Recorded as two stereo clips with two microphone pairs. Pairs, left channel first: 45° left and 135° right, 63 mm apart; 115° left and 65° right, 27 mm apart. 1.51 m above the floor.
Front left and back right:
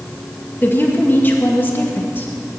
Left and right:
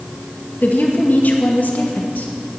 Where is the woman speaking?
105° left, 2.0 m.